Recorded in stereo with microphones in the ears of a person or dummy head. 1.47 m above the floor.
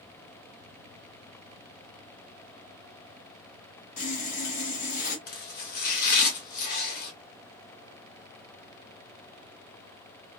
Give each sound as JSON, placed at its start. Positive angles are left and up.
{"t": 4.0, "sound": "sawing", "side_deg": 45, "distance_m": 1.6}
{"t": 5.3, "sound": "chopping", "side_deg": 50, "distance_m": 2.0}